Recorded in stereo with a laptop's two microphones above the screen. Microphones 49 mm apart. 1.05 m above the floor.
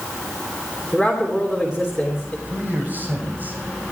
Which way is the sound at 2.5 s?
35° right (ahead or behind).